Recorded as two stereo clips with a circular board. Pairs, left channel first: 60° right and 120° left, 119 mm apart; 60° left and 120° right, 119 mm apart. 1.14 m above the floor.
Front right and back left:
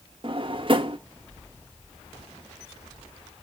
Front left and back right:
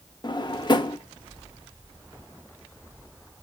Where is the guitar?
I don't hear a guitar.